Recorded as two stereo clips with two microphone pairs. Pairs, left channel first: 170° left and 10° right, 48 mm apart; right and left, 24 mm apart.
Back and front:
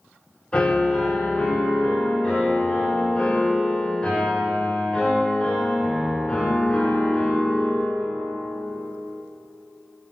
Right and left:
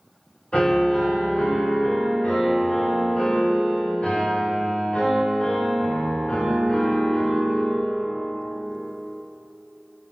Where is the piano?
125° right, 2.5 m.